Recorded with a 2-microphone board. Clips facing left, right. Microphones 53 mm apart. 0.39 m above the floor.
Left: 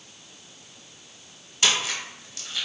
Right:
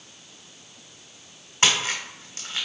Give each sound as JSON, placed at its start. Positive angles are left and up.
{"t": 1.6, "sound": "a splash", "side_deg": -45, "distance_m": 1.0}